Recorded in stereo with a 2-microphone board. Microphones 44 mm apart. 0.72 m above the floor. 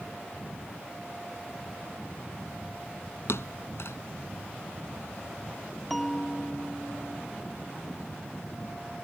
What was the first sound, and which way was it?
A thud, 75° left (ahead or behind).